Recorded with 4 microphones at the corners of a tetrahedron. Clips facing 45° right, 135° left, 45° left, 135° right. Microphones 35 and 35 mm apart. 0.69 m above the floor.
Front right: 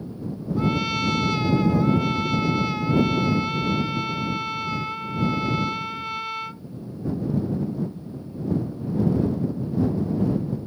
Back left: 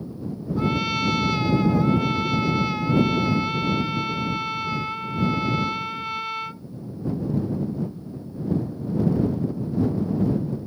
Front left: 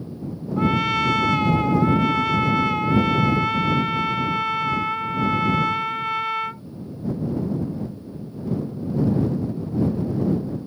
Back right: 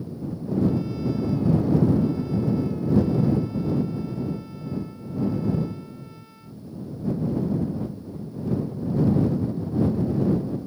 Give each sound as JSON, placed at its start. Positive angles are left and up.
{"t": 0.6, "sound": "a trumpet", "azimuth_deg": 45}